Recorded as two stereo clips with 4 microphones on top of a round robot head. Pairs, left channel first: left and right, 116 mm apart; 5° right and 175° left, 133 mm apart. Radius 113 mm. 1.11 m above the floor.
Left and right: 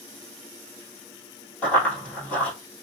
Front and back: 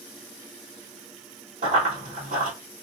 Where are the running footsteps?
165° left, 1.6 m.